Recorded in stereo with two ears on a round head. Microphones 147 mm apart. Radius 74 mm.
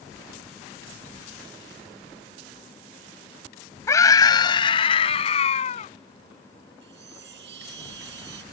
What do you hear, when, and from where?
3.9 s a scream: 20° left (ahead or behind); by 5.9 s 45° left (ahead or behind)
6.8 s a chime: 75° right (ahead or behind)